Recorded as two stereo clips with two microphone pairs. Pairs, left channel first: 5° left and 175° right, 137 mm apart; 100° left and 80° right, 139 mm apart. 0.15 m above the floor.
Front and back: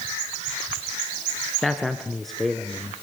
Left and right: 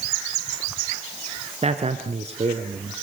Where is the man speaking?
85° right, 1.6 m.